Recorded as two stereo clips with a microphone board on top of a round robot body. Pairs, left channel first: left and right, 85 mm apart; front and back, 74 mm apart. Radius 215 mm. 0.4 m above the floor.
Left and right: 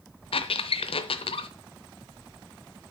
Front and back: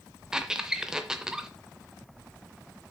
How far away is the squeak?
About 0.6 m.